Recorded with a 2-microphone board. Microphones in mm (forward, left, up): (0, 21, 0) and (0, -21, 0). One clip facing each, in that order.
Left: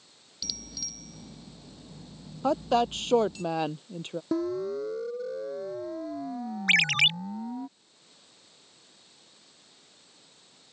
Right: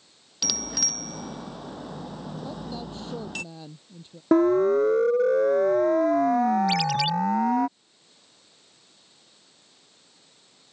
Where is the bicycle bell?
70° right (ahead or behind).